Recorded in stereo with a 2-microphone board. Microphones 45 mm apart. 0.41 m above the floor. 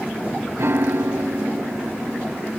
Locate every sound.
0.6 s a piano: 65° right (ahead or behind), 0.5 m